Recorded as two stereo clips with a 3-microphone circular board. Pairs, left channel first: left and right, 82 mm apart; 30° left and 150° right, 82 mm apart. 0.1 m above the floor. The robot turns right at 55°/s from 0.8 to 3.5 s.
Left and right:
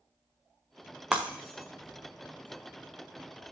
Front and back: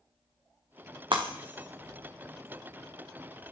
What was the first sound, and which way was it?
Breaking glass, 170° right.